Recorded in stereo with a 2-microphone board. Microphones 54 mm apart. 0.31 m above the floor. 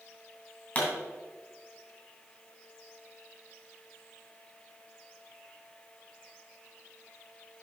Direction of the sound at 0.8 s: 35° left (ahead or behind).